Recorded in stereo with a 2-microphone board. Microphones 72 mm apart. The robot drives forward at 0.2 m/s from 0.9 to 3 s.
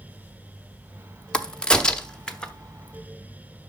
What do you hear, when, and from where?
1.3 s a crack: 10° left (ahead or behind), 0.6 m